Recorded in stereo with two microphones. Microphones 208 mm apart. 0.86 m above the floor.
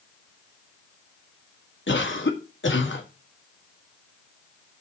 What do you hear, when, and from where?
1.9 s a cough: 65° left (ahead or behind), 1.6 m